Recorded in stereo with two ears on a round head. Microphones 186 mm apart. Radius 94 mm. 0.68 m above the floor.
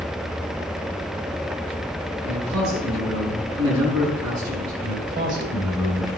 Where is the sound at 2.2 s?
75° right (ahead or behind), 7.5 m.